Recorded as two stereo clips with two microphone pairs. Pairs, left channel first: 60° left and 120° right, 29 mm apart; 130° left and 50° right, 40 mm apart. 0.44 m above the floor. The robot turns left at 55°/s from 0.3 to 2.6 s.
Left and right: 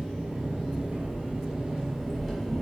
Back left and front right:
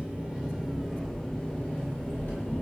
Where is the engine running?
110° right, 1.4 m; by 2.6 s 125° left, 1.4 m.